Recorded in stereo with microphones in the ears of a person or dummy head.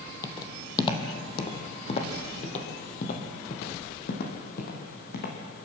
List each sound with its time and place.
0.2 s footsteps: 20° left (ahead or behind), 2 m; by 5.4 s 60° left (ahead or behind), 4 m